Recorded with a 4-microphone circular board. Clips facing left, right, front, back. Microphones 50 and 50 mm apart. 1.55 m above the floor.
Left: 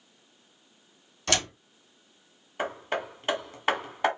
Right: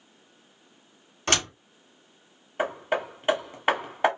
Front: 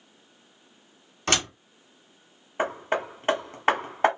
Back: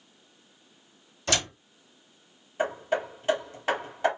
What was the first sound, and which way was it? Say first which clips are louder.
A door slam: right 2 dB, front 2 dB; 45° right.